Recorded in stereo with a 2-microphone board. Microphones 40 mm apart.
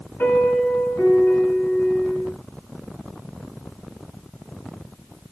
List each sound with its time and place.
0.2 s a piano: 55° left (ahead or behind), 6.5 m